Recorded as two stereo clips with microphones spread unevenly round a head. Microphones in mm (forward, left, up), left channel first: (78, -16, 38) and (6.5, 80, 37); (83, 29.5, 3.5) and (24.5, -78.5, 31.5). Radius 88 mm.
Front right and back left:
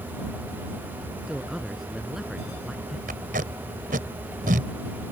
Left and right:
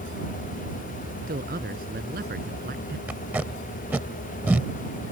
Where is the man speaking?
145° right.